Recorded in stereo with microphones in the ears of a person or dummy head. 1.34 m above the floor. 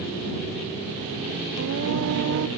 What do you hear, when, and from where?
1.6 s singing: 70° right (ahead or behind)